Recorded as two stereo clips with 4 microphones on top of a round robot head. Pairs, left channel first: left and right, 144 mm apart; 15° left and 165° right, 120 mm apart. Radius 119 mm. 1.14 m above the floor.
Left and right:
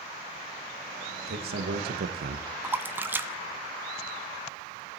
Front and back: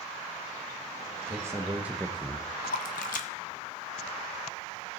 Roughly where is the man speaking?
Right.